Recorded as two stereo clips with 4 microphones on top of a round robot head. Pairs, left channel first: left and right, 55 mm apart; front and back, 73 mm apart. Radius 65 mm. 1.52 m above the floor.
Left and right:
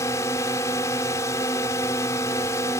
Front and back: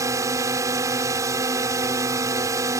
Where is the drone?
135° left.